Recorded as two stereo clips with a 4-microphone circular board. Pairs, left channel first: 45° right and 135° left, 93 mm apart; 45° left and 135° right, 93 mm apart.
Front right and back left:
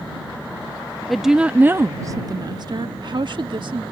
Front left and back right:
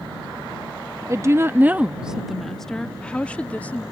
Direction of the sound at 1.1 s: 130° right.